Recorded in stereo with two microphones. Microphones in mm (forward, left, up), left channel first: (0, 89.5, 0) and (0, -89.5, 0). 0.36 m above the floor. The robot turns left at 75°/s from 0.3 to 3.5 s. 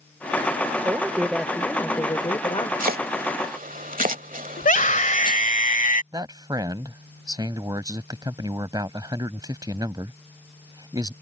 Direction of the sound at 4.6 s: 45° left (ahead or behind).